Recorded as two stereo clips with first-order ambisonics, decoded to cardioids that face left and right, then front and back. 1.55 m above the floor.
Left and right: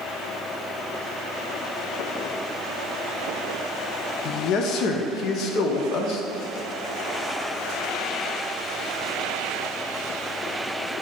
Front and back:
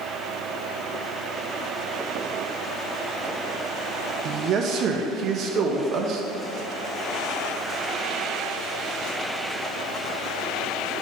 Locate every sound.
4.2 s a man speaking: 130° left, 0.6 m